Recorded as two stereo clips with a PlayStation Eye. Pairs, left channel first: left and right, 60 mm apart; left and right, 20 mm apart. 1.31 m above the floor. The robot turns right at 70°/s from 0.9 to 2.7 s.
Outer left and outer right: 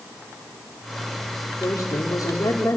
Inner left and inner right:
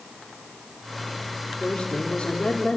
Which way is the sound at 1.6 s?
55° left.